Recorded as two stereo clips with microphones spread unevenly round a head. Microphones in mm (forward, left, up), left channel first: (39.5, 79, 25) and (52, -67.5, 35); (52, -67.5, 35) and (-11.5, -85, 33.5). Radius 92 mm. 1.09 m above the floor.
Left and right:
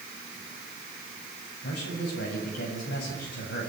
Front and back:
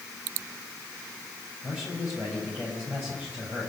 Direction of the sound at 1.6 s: 120° left.